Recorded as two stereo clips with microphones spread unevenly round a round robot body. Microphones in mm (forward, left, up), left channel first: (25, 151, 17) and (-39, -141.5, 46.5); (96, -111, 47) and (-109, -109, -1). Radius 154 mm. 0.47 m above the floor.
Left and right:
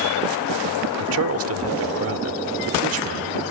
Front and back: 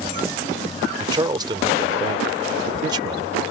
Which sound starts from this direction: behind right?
A man speaking, at 1.0 s.